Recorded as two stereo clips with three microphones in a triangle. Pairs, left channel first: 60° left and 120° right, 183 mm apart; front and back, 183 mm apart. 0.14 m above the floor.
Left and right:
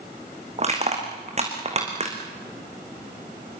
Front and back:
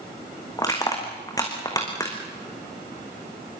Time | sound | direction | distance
0.6 | crushing | 70° right | 5 m